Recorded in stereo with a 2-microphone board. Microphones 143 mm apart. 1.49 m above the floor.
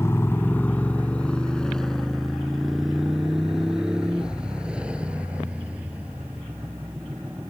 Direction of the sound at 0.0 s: 20° left (ahead or behind).